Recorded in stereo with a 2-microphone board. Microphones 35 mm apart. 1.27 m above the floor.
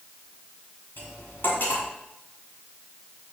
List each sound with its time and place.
1.0 s cutlery clinking: 85° left, 7 m